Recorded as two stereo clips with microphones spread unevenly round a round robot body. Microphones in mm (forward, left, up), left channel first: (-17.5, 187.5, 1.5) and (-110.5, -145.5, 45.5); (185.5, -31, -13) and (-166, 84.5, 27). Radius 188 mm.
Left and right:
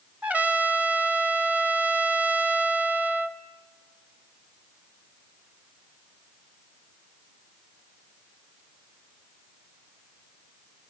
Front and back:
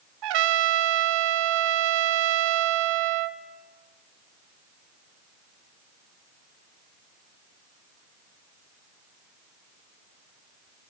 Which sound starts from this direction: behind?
A trumpet, at 0.2 s.